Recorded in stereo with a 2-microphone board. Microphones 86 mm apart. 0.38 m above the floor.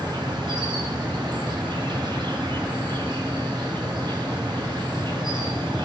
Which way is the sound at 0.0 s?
65° right (ahead or behind).